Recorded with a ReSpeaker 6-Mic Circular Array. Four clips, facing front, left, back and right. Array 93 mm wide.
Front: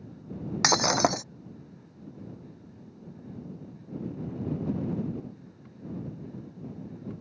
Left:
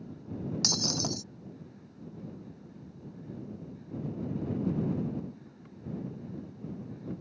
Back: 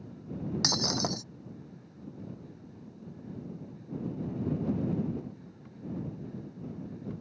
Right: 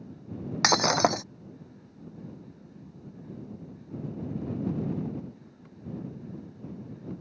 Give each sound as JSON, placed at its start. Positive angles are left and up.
{"t": 0.6, "sound": "breaking glass", "azimuth_deg": -55}